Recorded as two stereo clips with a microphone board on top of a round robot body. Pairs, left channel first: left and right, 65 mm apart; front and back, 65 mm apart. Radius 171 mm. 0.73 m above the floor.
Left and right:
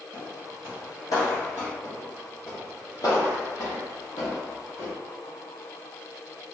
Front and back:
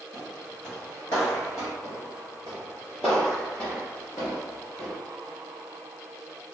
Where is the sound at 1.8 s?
175° right, 0.8 m; by 4.9 s 60° left, 1.5 m.